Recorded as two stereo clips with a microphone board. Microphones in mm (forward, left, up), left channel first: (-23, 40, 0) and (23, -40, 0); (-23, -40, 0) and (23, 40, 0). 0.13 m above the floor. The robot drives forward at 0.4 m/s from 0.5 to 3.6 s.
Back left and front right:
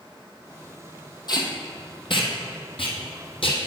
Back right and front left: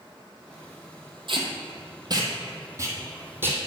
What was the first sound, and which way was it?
Tape being pulled, 85° left.